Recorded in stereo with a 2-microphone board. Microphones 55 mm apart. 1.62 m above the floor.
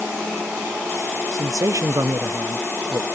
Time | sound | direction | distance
1.3 | a man speaking | 65° right (ahead or behind) | 0.8 m